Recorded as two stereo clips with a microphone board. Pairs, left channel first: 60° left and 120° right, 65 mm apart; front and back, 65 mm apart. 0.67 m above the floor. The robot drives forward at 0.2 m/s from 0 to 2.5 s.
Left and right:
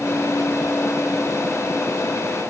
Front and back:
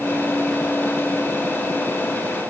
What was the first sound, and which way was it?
Only background noise.